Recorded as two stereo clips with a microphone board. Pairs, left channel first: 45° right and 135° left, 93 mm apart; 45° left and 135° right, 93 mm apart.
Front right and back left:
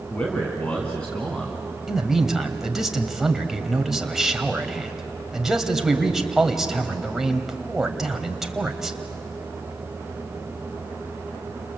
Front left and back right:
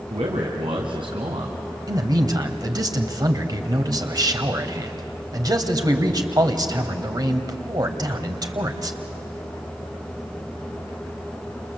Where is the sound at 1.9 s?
140° right, 1.8 m.